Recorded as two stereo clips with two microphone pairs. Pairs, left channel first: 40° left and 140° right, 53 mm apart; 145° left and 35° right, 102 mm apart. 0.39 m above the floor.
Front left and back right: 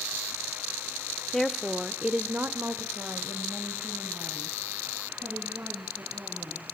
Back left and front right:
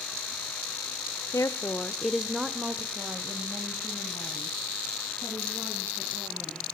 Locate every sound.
1.3 s a woman speaking: 120° left, 1.1 m; by 6.7 s 95° right, 5.5 m